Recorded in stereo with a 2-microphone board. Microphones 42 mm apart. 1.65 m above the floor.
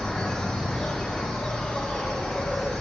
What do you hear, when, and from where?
0.0 s an insect: 15° left (ahead or behind), 1.0 m